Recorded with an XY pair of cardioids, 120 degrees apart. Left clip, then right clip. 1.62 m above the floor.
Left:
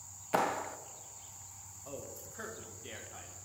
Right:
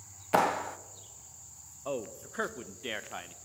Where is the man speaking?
65° right, 0.6 m.